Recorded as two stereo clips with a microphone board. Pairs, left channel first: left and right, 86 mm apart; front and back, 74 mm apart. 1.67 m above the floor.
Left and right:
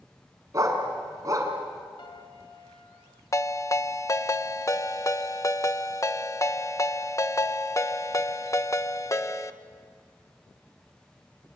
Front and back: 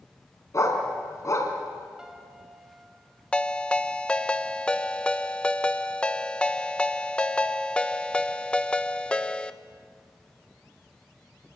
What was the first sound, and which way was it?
A dog barking, 40° right.